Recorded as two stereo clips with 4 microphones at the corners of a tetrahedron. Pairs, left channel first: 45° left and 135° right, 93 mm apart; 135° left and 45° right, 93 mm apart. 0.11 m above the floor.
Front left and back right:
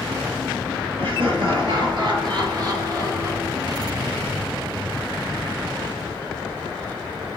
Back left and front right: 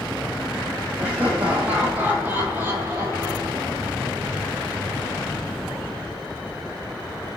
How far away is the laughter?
About 3.5 m.